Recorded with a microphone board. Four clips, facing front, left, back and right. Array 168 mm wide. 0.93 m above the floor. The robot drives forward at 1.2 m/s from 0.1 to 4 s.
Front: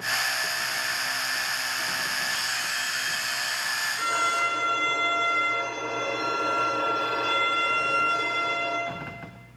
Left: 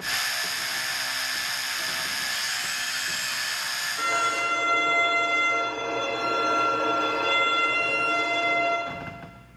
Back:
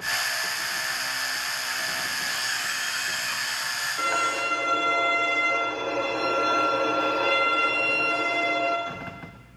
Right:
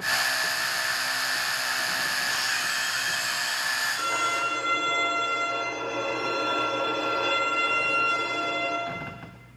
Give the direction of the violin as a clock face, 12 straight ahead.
6 o'clock.